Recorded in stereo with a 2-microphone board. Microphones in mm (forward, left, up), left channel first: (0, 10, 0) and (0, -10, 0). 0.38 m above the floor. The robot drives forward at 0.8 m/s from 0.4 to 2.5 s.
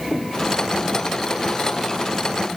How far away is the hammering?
No hammering in this recording.